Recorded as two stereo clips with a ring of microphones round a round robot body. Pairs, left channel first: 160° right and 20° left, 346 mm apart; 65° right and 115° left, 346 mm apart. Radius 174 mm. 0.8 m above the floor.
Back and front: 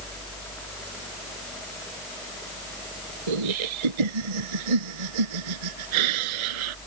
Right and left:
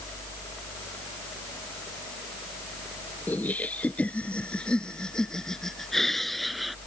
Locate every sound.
3.3 s laughter: 20° left; by 6.8 s 25° left